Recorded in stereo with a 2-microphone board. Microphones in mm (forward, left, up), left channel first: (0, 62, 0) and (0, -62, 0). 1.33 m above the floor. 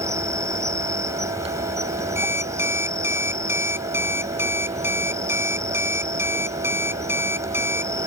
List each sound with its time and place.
0.0 s an insect: 25° right (ahead or behind)
2.1 s an alarm clock: 20° right (ahead or behind)